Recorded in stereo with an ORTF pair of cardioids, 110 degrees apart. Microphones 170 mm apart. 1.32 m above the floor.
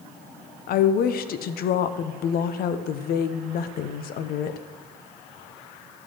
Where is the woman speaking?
60° left, 0.6 m.